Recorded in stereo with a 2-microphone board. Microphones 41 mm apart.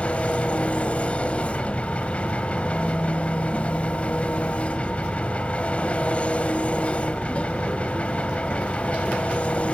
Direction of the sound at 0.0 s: 35° left (ahead or behind).